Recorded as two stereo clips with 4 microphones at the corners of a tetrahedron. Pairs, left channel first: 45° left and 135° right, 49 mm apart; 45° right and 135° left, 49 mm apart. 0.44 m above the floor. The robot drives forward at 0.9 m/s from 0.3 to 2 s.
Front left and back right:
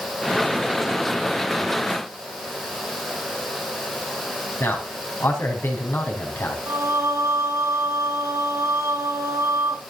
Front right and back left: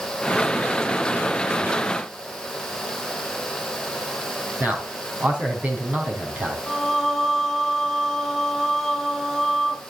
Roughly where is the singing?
Behind right.